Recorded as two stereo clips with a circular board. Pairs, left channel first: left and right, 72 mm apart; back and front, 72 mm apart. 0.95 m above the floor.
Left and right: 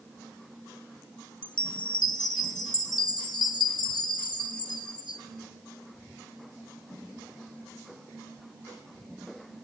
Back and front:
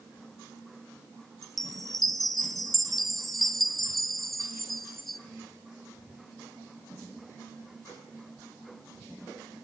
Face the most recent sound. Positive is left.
turn(degrees=95)